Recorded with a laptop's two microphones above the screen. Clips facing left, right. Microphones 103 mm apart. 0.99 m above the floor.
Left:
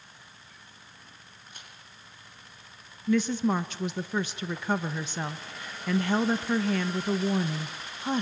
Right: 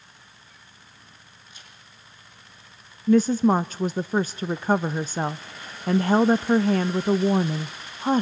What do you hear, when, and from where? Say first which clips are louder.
1.5 s a crack: left 2 dB; 60° left (ahead or behind), 7 m
3.1 s a woman speaking: right 7 dB; 40° right (ahead or behind), 0.6 m